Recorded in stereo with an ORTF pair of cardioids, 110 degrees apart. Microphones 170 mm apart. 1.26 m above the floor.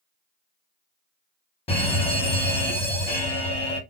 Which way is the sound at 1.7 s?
35° left.